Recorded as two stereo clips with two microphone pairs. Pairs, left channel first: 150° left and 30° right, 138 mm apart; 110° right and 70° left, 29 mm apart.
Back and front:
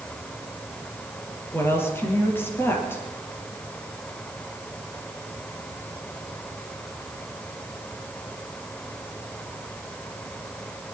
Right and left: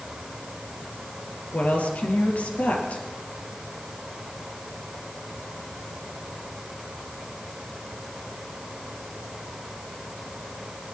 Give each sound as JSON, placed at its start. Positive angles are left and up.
{"t": 1.5, "sound": "a woman speaking", "azimuth_deg": -135, "distance_m": 3.0}